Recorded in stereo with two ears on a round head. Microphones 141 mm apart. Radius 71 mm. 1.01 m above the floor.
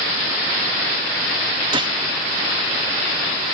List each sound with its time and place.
1.7 s a gunshot: 30° right (ahead or behind), 1.4 m